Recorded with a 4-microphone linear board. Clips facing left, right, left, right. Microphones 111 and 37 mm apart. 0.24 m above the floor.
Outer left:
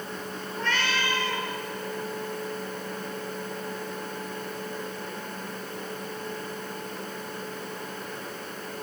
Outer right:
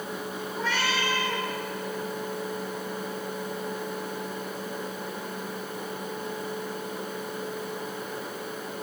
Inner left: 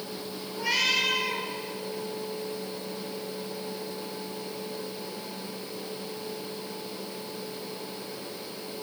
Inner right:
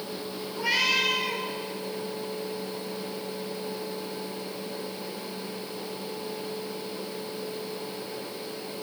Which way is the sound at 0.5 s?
5° right (ahead or behind).